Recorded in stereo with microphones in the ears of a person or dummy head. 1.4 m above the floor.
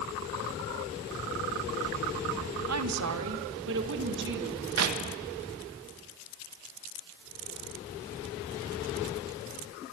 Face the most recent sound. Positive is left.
turn(degrees=-85)